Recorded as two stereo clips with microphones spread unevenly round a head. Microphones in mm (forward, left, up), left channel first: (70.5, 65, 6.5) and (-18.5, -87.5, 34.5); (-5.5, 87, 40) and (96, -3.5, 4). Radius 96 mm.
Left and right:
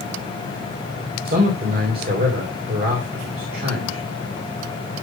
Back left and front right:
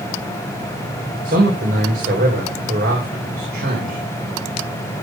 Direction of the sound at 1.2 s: 80° right.